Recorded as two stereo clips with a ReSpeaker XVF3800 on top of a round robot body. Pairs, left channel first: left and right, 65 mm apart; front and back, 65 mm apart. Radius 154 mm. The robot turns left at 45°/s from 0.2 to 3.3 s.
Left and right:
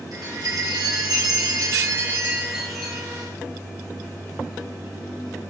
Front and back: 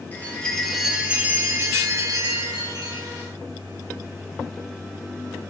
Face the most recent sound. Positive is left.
turn(degrees=155)